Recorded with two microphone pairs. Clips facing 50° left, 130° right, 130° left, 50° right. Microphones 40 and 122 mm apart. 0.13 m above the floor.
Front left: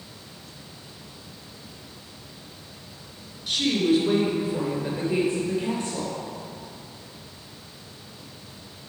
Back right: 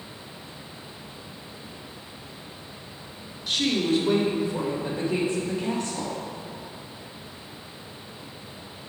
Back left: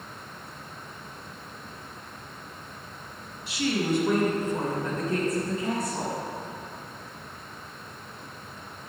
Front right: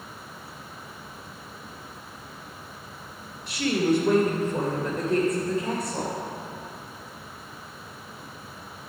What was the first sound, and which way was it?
A woman speaking, 20° right.